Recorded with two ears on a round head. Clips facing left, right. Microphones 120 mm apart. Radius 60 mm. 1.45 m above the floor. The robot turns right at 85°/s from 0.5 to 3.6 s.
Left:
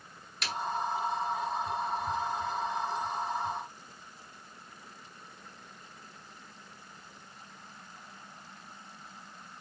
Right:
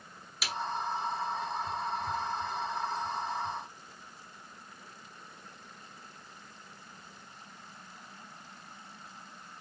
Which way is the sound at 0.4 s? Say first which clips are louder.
Left 1 dB; 5° right (ahead or behind).